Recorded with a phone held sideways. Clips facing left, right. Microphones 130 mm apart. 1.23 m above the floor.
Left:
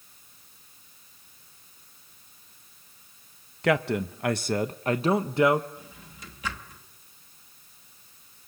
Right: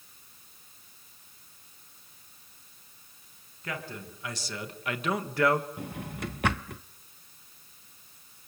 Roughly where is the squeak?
I don't hear a squeak.